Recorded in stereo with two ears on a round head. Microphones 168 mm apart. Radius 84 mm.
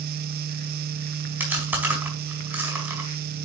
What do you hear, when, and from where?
1.4 s chewing: 10° right (ahead or behind), 4.5 m